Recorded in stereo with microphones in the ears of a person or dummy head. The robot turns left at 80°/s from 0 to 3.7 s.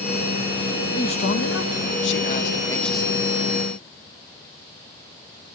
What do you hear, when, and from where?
0.9 s a man speaking: 160° left, 1.7 m; by 3.3 s 30° right, 1.7 m